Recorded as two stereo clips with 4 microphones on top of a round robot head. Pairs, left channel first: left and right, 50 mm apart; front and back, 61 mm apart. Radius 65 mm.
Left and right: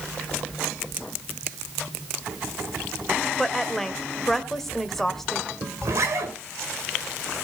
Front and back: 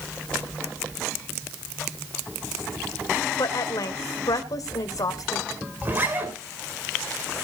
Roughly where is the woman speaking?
Ahead.